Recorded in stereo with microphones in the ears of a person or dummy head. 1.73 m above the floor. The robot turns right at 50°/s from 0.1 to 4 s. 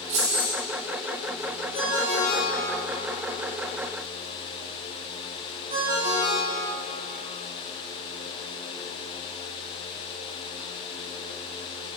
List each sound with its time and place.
0.1 s keys jangling: 45° right (ahead or behind), 1.8 m; by 0.5 s 30° right (ahead or behind), 1.8 m
1.7 s a ringtone: 50° left (ahead or behind), 2.5 m; by 6.9 s 45° right (ahead or behind), 2.5 m